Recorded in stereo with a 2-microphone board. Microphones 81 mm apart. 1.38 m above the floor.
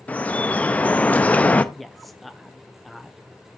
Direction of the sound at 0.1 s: 20° left (ahead or behind).